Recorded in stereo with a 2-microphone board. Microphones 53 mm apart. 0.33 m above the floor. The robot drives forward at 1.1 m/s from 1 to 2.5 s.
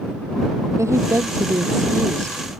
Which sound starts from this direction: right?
A woman speaking, at 0.8 s.